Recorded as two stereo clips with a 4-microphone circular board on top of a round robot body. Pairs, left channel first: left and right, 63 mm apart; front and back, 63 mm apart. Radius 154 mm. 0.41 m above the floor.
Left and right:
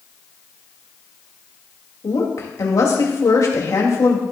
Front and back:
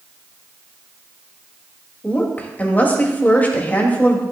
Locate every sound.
2.0 s a woman speaking: 60° left, 2.5 m